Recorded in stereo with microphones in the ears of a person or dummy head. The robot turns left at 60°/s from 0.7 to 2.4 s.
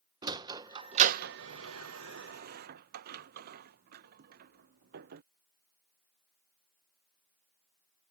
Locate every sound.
0.2 s a sliding door: 25° right (ahead or behind); by 5.2 s 55° right (ahead or behind)